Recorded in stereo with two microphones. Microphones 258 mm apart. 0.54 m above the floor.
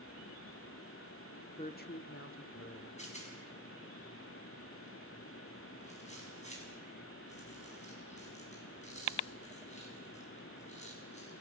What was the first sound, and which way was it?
A woman speaking, 20° left (ahead or behind).